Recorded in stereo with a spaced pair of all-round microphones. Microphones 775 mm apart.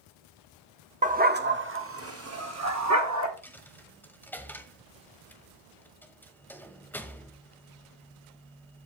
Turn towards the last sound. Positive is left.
turn(degrees=0)  # may be behind; listen again after turning